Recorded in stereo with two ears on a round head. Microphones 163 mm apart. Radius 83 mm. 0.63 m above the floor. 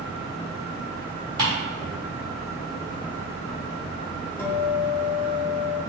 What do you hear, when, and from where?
1.4 s ticking: 25° right (ahead or behind), 1.7 m
4.4 s a guitar: 15° left (ahead or behind), 0.6 m